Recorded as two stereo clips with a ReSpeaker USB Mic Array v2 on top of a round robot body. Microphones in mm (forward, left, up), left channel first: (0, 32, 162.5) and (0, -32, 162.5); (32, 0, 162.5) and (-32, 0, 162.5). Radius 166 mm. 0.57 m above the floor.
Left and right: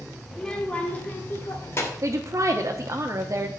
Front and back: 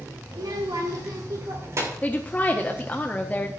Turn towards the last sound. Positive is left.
turn(degrees=-65)